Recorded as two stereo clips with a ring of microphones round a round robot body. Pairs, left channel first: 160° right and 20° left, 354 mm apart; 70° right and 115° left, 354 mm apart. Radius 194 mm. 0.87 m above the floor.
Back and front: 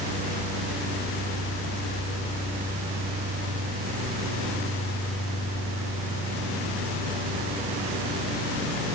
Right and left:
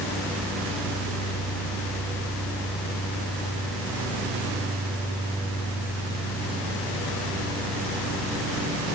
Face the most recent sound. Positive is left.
No sound to turn to.